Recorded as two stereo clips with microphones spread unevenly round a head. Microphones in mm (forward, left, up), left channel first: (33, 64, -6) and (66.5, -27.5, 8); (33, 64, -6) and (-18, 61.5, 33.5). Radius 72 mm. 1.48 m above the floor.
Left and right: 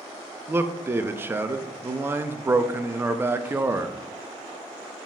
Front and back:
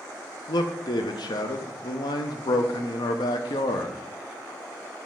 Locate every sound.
0.5 s a man speaking: 5° right, 0.6 m